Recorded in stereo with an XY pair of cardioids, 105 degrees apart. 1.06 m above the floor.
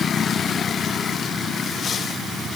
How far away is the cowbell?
No cowbell in this recording.